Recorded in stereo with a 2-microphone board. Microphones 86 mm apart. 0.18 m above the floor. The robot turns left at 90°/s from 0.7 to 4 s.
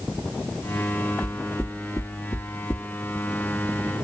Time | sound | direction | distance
1.2 | knocking | 10° right (ahead or behind) | 1.4 m